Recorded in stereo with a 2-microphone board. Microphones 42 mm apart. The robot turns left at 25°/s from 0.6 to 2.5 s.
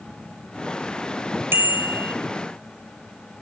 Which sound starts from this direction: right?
A bicycle bell, at 1.5 s.